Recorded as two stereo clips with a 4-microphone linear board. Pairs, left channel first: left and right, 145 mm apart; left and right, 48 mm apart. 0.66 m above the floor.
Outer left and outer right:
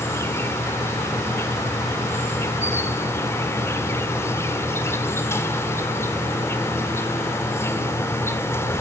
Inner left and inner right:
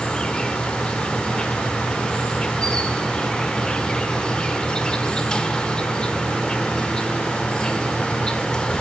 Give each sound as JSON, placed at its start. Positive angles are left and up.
{"t": 0.0, "sound": "an insect", "side_deg": 20, "distance_m": 1.9}